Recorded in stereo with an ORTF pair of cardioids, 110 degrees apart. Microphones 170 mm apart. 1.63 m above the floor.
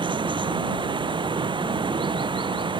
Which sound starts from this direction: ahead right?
Running water, at 0.0 s.